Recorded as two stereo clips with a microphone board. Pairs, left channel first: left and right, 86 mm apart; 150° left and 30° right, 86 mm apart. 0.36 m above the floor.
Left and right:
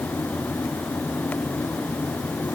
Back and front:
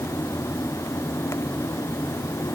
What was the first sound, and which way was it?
Only background noise.